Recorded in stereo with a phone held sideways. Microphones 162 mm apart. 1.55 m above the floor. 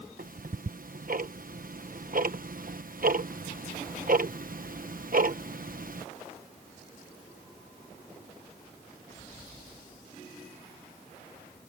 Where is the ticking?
60° right (ahead or behind).